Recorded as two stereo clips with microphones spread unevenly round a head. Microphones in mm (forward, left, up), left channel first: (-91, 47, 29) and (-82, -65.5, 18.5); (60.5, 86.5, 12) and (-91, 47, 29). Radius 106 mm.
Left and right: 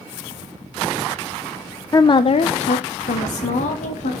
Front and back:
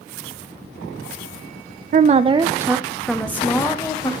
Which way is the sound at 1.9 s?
155° left.